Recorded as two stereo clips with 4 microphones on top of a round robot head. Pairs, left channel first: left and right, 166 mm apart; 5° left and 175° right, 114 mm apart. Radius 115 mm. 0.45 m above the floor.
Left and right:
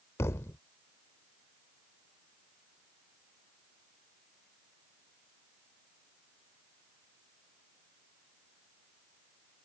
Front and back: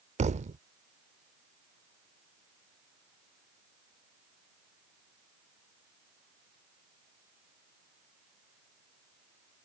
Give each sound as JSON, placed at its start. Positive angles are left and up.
{"t": 0.2, "sound": "a thud", "azimuth_deg": 165}